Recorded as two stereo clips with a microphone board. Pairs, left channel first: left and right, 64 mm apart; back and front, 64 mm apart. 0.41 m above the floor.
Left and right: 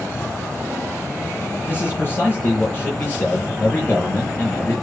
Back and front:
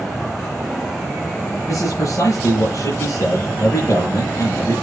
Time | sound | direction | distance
1.7 | a man speaking | 145° left | 8.5 m